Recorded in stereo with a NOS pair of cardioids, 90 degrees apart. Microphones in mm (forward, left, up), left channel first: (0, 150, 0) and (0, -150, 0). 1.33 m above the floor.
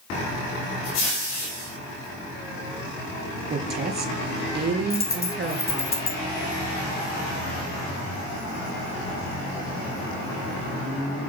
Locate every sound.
3.5 s a woman speaking: 35° right, 3 m
4.9 s a dropped coin: 30° left, 2 m